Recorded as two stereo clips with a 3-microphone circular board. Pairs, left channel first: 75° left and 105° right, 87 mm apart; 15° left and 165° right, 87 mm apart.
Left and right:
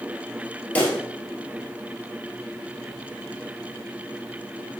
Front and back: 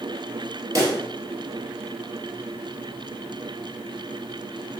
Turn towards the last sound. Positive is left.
turn(degrees=145)